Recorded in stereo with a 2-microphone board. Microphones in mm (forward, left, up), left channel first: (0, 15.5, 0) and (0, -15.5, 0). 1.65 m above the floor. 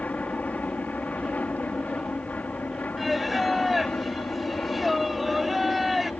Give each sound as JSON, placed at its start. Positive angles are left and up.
{"t": 0.0, "sound": "an aircraft", "side_deg": 55}
{"t": 3.0, "sound": "singing", "side_deg": -5}